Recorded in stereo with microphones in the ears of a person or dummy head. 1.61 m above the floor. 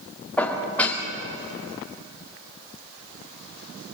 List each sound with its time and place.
0.4 s dishes clattering: 5° left (ahead or behind), 2.5 m